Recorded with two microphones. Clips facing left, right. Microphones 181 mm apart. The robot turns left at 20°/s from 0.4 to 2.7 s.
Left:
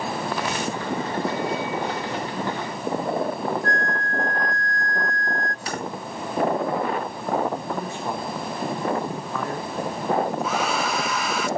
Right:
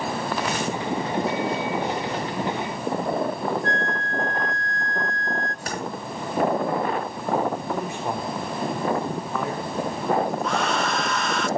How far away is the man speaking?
About 2.5 m.